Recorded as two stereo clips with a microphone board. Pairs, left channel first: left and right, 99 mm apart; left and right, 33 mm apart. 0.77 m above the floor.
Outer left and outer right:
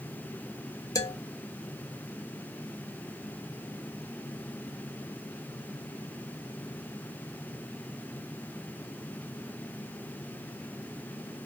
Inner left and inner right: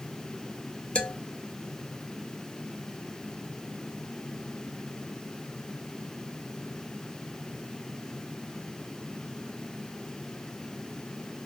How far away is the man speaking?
About 0.8 m.